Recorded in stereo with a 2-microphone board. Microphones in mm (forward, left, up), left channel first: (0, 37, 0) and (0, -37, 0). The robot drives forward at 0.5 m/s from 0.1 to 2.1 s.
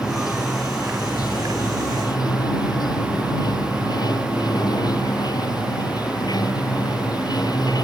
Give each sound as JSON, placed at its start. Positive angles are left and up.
{"t": 0.0, "sound": "running water", "side_deg": 55}